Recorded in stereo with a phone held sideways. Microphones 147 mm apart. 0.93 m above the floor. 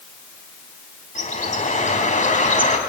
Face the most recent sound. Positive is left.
turn(degrees=60)  # may be behind; listen again after turning